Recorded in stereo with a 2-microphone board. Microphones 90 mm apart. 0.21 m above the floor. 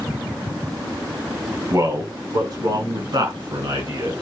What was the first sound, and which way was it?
A man speaking, 40° right (ahead or behind).